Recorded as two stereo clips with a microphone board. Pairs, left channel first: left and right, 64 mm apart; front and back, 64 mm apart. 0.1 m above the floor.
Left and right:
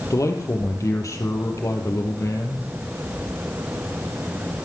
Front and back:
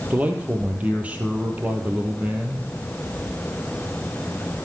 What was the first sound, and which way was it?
A man speaking, 115° left.